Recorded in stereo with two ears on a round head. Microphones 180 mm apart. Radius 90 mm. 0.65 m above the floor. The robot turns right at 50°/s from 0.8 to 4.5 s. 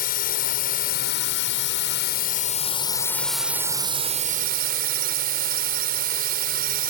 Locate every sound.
0.0 s a drone: 55° left; by 6.9 s 120° right